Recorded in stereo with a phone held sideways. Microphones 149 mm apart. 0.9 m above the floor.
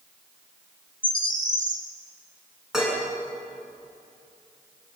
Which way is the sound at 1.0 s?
60° right (ahead or behind).